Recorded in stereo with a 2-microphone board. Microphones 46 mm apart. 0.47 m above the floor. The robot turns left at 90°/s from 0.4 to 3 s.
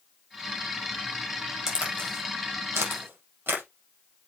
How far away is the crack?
About 4.5 m.